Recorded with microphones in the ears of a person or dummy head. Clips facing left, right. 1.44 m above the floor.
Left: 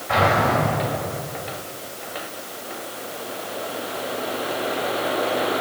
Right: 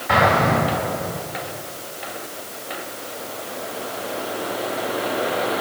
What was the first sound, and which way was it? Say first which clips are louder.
An explosion: right 2 dB; 65° right (ahead or behind).